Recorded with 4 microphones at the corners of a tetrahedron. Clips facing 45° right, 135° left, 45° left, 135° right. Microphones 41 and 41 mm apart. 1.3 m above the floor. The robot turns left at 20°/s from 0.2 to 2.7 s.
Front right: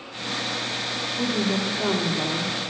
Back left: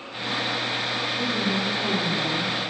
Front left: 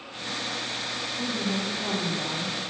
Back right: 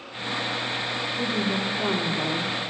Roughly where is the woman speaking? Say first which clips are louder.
Front right 3 dB, back right 3 dB; right.